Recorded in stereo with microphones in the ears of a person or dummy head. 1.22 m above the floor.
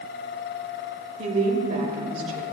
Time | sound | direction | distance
1.2 | a woman speaking | 35° right (ahead or behind) | 1.7 m